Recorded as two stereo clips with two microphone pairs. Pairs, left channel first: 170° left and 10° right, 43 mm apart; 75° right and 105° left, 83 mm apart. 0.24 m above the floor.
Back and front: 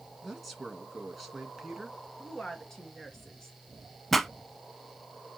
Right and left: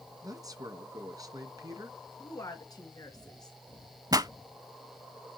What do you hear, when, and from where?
0.2 s a man speaking: 80° left, 2.5 m
2.2 s a woman speaking: 105° right, 3 m
4.1 s a pop: 85° left, 0.7 m